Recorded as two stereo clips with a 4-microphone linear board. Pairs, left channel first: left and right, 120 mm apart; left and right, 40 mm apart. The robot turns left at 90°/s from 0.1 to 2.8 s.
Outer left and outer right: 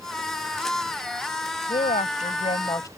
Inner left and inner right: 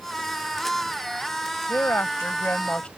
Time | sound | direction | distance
1.7 | a woman speaking | 130° left | ?